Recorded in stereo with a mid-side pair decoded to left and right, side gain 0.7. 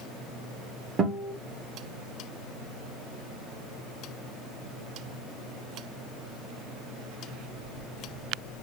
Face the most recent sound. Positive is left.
turn(degrees=-30)